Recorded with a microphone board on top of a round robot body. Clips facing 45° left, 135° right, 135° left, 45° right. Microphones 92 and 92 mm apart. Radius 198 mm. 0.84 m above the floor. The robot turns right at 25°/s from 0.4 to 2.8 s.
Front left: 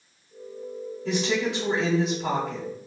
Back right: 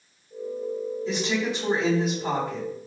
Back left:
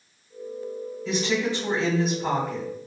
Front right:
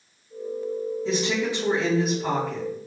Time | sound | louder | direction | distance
1.1 | a woman speaking | front left 3 dB, back left 2 dB | 15° left | 2.0 m